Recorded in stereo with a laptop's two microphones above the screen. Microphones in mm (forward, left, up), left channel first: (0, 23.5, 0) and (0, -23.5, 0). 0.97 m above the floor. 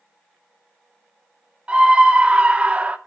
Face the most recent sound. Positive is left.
turn(degrees=-25)  # may be behind; listen again after turning